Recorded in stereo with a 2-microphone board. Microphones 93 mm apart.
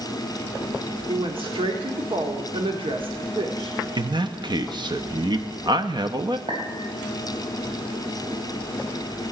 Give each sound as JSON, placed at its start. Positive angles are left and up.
{"t": 1.1, "sound": "a woman speaking", "side_deg": -65, "distance_m": 1.6}
{"t": 4.0, "sound": "a man speaking", "side_deg": -50, "distance_m": 0.7}
{"t": 6.5, "sound": "a clink", "side_deg": -60, "distance_m": 3.5}